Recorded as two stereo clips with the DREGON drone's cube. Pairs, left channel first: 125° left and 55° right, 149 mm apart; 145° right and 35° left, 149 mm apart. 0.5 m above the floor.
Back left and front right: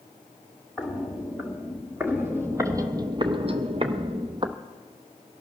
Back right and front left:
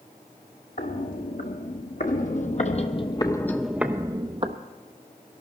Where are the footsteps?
140° right, 2 m; by 4.6 s straight ahead, 0.9 m.